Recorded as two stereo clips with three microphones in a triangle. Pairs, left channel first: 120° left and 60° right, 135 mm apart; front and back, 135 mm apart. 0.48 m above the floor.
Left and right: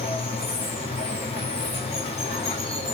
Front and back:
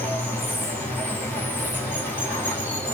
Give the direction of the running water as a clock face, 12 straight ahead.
9 o'clock.